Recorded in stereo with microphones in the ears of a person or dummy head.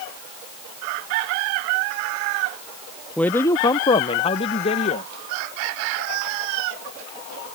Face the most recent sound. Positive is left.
turn(degrees=30)  # may be behind; listen again after turning